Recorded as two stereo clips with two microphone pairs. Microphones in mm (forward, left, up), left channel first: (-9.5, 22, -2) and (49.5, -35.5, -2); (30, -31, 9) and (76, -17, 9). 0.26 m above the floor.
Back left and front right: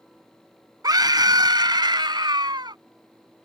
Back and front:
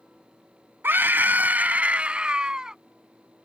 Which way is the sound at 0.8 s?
15° right.